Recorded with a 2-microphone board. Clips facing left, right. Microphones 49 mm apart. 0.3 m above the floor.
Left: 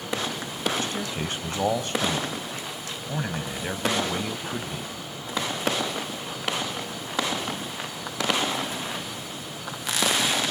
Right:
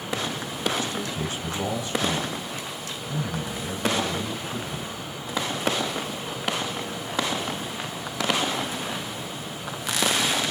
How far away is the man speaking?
About 1.8 m.